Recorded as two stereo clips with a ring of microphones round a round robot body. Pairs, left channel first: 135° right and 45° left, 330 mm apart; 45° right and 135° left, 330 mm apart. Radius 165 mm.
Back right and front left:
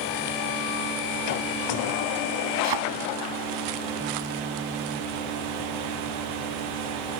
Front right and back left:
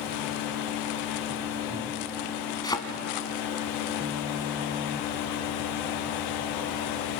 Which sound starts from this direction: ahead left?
A thud, at 2.6 s.